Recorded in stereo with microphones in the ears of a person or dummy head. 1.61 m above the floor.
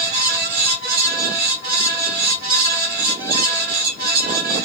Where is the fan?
50° right (ahead or behind), 1.6 m.